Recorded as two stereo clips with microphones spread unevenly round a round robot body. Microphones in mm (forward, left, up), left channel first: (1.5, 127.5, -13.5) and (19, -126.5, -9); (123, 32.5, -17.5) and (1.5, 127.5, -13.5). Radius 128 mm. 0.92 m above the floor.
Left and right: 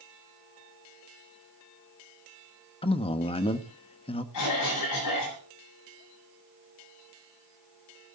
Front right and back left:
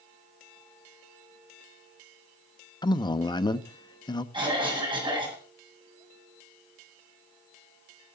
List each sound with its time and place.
2.8 s a man speaking: 25° left, 0.9 m
4.3 s a cough: 85° left, 8 m